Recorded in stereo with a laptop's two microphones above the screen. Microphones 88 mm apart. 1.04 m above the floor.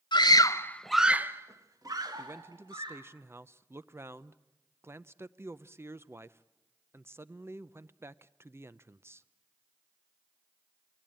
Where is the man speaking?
30° right (ahead or behind), 0.6 m.